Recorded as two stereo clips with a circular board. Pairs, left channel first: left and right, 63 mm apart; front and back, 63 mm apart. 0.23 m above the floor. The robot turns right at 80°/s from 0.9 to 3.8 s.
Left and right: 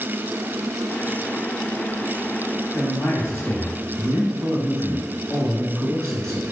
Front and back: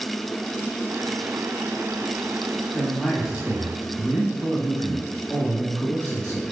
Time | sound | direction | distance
2.7 | a man speaking | 65° left | 1.2 m